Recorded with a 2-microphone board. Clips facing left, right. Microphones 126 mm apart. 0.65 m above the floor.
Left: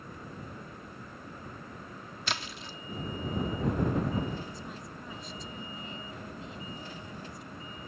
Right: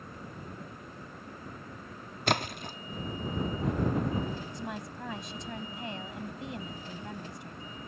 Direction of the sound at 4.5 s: 80° right.